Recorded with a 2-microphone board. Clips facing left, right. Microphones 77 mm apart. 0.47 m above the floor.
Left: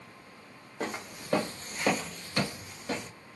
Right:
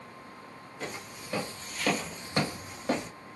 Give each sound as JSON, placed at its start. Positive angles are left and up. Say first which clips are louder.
{"t": 0.8, "sound": "footsteps", "louder": "left 4 dB", "side_deg": 70, "distance_m": 1.3}